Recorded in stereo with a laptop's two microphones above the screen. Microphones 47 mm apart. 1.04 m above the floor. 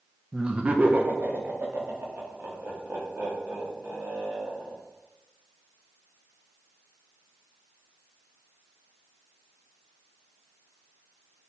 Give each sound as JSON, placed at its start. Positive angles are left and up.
{"t": 0.3, "sound": "laughter", "side_deg": -15, "distance_m": 0.9}